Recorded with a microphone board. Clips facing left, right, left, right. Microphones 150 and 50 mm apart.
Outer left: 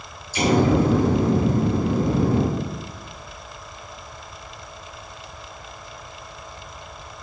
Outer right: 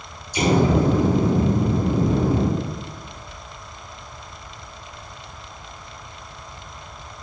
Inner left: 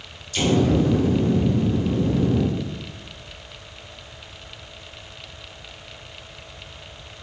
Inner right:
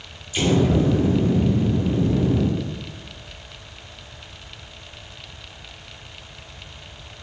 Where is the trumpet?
No trumpet in this recording.